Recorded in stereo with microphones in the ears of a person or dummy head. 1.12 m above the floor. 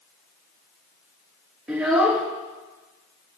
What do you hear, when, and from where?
1.7 s a child speaking: 5° right (ahead or behind), 1.9 m